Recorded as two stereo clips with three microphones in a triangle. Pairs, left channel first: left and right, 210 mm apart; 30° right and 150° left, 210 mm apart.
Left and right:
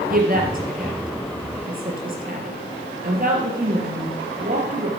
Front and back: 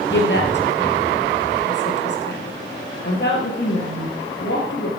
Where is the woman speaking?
50° right, 3.5 m.